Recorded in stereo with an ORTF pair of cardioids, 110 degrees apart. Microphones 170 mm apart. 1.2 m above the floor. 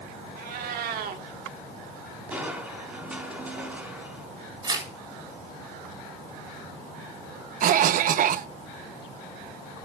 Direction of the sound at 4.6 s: 25° right.